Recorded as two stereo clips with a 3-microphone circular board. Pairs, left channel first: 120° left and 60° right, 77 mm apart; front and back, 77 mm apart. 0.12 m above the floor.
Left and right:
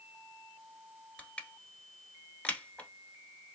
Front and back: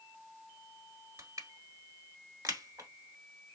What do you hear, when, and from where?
1.2 s crushing: 170° right, 1.2 m